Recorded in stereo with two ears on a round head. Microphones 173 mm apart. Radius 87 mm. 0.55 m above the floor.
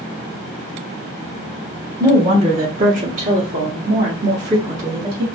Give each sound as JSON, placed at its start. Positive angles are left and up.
{"t": 2.0, "sound": "a woman speaking", "side_deg": -20, "distance_m": 0.8}